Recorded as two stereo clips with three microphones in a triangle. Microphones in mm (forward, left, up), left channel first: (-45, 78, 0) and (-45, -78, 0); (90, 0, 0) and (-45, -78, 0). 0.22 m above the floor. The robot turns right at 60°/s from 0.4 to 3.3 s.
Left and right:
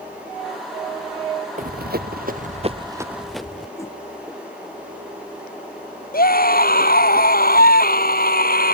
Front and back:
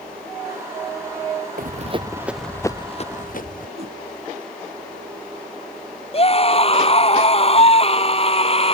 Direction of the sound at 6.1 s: 80° left.